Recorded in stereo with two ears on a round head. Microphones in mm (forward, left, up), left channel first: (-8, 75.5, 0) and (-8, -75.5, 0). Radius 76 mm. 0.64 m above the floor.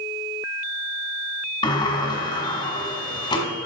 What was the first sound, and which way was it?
A sliding door, 25° left (ahead or behind).